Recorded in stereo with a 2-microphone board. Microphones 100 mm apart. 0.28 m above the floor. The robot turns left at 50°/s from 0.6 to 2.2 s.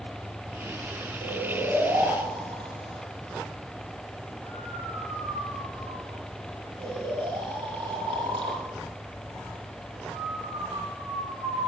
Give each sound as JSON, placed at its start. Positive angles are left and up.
{"t": 1.2, "sound": "snoring", "side_deg": 5, "distance_m": 9.5}